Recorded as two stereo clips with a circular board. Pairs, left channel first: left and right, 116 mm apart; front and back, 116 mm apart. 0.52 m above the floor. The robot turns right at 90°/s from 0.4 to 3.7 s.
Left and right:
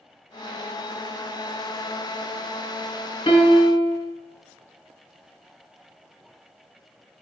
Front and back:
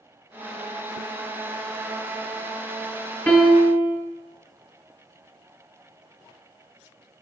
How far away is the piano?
About 1.3 m.